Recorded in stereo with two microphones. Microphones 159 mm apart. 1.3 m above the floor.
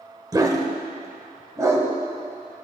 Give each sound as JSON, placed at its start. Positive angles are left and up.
{"t": 0.3, "sound": "a dog barking", "side_deg": -25, "distance_m": 1.3}